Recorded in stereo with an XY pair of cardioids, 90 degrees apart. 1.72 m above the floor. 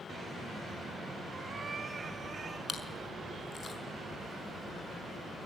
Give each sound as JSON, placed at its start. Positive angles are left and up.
{"t": 1.3, "sound": "a cat meowing", "azimuth_deg": -35, "distance_m": 5.0}
{"t": 2.7, "sound": "chewing", "azimuth_deg": 45, "distance_m": 5.5}